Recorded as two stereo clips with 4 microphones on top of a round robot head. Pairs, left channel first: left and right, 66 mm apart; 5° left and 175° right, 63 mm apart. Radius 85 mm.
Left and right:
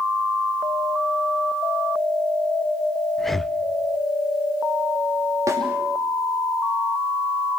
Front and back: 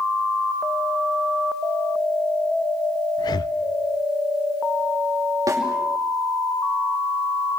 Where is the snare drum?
140° right, 5.5 m.